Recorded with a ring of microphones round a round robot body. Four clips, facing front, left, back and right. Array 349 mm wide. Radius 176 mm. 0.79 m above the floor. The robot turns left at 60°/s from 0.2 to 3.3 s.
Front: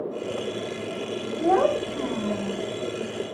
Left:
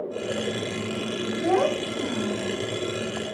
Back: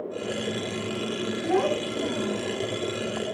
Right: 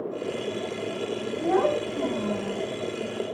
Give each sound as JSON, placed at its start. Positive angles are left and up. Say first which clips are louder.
{"t": 1.4, "sound": "a child speaking", "louder": "even, front 5 dB", "azimuth_deg": 30, "distance_m": 1.5}